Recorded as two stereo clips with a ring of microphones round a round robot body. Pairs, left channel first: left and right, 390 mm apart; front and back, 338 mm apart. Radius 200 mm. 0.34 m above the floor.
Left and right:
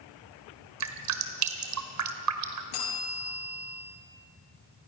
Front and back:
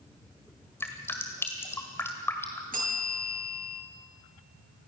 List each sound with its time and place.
0.8 s dripping: 80° right, 1.8 m
2.7 s a bell: 115° left, 7 m